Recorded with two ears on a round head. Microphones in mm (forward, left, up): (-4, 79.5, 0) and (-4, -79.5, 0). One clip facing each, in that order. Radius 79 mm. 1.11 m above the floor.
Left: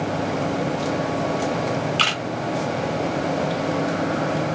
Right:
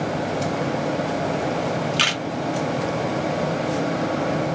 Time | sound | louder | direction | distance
2.0 | a camera shutter | even | 15° right (ahead or behind) | 0.8 m